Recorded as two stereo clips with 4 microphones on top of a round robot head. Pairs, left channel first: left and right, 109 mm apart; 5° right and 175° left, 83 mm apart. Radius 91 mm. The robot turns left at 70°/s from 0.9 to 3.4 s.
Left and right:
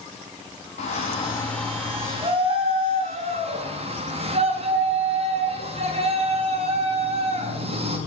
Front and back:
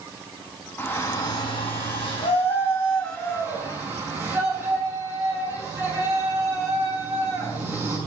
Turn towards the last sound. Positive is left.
turn(degrees=-115)